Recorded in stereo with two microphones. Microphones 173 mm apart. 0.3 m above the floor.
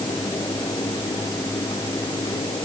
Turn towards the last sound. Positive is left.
No sound to turn to.